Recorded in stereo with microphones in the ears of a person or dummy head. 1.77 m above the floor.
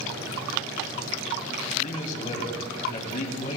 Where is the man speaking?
45° left (ahead or behind), 3 m.